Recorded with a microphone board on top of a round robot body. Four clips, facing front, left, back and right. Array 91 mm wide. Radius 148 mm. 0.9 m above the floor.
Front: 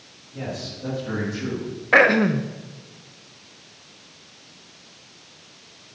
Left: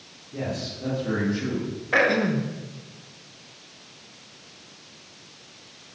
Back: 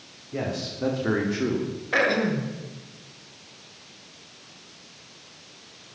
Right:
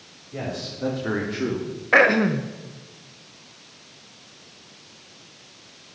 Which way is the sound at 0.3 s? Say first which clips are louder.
Even, back 2 dB; 160° right.